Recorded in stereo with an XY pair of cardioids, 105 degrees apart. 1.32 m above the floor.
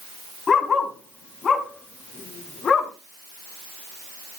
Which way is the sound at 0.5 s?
40° left.